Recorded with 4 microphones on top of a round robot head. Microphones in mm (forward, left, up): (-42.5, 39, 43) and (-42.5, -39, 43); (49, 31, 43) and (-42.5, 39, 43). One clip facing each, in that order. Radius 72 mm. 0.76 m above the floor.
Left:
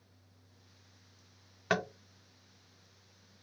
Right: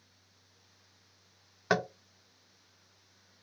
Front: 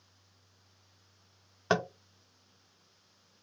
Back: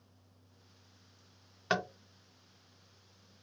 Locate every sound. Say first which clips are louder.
1.7 s tapping: right 3 dB, front 4 dB; 30° right, 0.5 m